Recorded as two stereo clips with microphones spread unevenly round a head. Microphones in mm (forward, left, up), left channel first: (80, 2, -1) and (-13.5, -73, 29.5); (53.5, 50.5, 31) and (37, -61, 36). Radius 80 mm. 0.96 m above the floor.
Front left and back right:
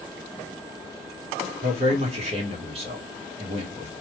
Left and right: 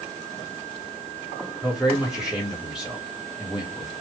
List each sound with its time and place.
1.6 s a man speaking: 175° left, 1.0 m